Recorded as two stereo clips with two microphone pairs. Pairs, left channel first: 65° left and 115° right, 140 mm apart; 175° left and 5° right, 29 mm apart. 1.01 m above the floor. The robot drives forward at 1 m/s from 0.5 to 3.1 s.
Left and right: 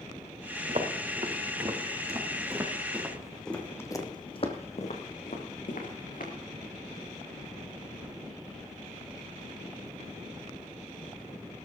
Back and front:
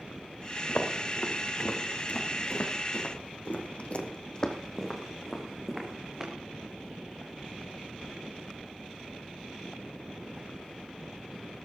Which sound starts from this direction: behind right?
Footsteps, at 0.7 s.